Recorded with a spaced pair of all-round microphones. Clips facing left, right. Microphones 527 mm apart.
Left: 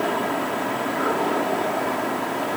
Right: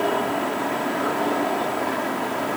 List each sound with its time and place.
Only background noise.